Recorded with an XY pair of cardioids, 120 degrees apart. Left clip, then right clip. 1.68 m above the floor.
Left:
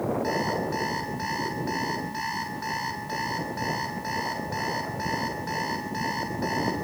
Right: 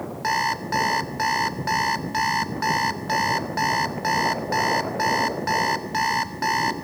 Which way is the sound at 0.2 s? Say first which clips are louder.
Right 4 dB; 55° right.